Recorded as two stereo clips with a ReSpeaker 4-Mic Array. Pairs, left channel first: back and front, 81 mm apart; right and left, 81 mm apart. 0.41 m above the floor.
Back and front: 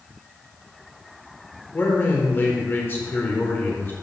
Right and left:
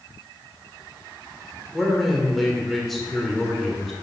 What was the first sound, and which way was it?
A man speaking, straight behind.